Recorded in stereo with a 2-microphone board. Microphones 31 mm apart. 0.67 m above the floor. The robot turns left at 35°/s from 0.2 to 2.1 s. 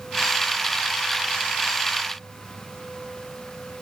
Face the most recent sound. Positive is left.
No sound to turn to.